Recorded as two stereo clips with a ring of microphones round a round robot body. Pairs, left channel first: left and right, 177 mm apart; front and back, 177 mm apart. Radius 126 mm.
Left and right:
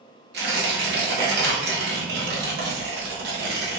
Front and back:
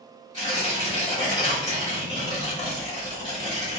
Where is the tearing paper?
70° right, 1.2 m.